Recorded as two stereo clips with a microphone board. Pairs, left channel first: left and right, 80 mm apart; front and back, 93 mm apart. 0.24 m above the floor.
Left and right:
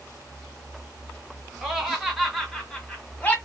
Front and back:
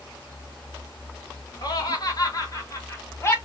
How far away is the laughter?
About 2.5 m.